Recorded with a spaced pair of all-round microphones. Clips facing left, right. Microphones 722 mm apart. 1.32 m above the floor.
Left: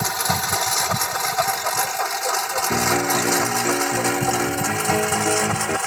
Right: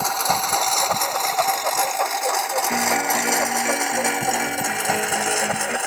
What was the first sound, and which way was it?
A lawn mower, 45° left (ahead or behind).